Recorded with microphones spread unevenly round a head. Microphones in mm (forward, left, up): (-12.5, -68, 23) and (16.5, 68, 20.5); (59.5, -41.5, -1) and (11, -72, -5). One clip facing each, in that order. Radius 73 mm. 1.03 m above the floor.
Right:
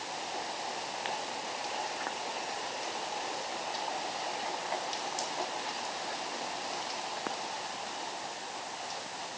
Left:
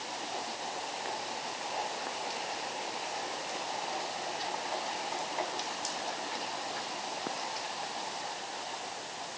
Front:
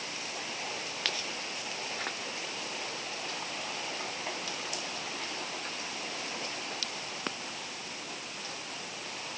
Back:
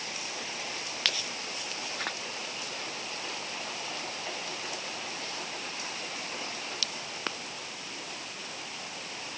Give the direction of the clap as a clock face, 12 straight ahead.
I don't hear a clap.